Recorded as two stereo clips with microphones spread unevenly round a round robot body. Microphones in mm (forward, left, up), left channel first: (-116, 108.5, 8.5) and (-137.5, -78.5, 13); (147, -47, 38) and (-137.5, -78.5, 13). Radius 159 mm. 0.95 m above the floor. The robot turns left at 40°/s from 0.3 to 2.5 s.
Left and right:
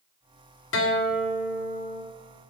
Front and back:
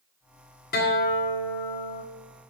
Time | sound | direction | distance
0.7 | a guitar | 70° left | 1.9 m